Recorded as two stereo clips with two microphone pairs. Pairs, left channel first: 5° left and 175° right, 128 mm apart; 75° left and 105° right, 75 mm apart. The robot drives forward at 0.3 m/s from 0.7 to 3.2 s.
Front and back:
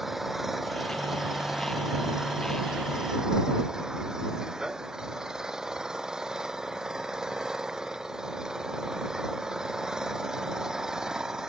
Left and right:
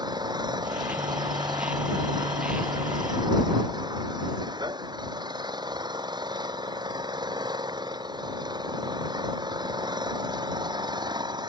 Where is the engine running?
85° right; by 11.5 s 90° right.